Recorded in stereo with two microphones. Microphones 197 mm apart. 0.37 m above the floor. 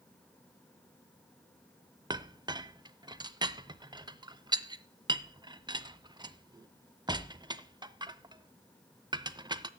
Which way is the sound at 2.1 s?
20° right (ahead or behind).